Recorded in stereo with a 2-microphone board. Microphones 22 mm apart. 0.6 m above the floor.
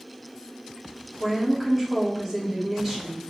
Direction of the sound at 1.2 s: 10° right (ahead or behind).